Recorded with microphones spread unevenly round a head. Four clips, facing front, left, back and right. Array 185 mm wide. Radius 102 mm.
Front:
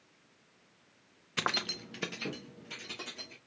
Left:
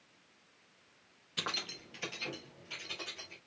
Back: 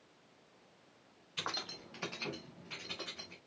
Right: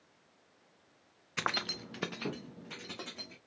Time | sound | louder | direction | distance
1.4 | keys jangling | right 6 dB, front 8 dB | 5° right | 0.6 m